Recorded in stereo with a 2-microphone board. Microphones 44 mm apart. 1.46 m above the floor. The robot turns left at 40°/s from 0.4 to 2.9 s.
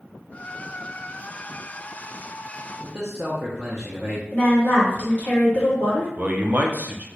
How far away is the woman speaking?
About 2.0 m.